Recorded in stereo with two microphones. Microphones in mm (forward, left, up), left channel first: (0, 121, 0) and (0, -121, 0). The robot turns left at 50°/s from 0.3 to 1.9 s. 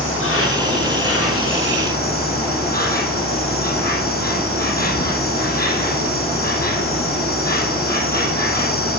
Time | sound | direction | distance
0.0 | an insect | 120° left | 6 m